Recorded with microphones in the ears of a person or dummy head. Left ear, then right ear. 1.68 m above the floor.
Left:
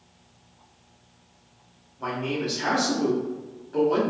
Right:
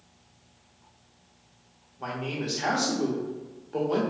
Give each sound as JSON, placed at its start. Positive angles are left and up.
{"t": 2.0, "sound": "a man speaking", "side_deg": -10, "distance_m": 0.6}